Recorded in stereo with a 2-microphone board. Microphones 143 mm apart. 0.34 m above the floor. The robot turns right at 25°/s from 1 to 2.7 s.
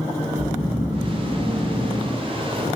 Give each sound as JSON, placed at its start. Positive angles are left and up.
{"t": 0.3, "sound": "snoring", "azimuth_deg": 80, "distance_m": 4.5}